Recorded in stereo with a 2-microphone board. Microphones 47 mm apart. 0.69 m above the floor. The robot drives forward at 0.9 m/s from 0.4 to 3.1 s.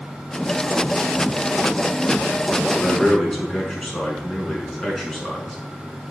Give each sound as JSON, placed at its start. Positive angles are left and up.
{"t": 2.7, "sound": "a man speaking", "side_deg": 5, "distance_m": 6.5}